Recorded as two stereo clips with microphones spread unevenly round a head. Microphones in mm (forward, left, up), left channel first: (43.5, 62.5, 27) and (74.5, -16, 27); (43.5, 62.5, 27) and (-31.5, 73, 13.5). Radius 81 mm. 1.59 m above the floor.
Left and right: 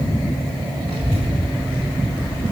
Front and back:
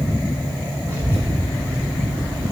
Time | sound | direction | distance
0.9 | a child speaking | 110° right | 1.7 m